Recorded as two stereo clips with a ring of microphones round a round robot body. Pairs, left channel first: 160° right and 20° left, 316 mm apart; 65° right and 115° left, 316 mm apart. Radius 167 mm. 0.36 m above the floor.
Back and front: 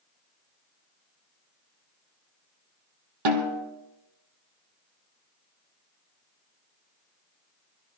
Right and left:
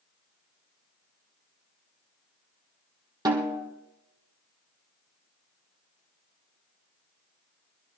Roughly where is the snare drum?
Ahead left.